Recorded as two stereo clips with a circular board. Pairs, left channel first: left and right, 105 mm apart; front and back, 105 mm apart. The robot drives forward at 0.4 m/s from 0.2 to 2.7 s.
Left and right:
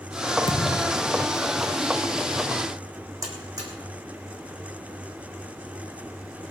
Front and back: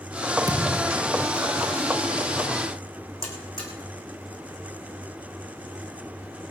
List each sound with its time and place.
0.5 s a thud: 130° left, 1.5 m; by 1.4 s 140° left, 1.8 m
3.2 s a buzzer: 40° right, 4 m